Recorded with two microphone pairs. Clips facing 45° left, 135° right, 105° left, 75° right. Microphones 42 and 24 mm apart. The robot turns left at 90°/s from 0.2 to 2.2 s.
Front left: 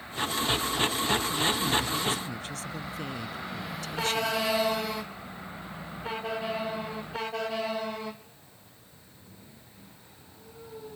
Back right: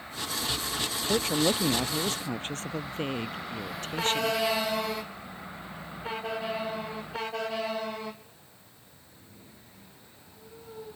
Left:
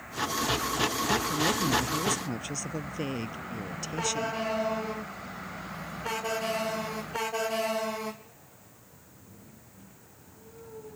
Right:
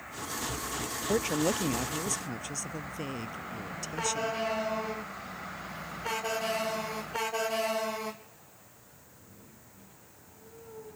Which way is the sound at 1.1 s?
85° right.